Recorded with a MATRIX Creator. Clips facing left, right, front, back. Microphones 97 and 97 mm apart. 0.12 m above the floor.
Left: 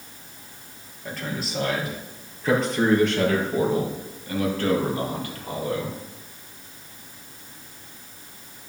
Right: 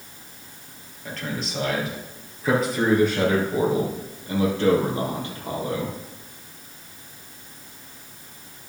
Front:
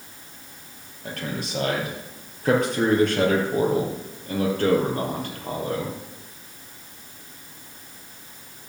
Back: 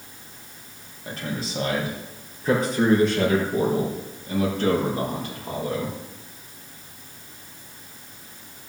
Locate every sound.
1.1 s a man speaking: 5° left, 3.5 m; by 6.0 s 30° right, 4.5 m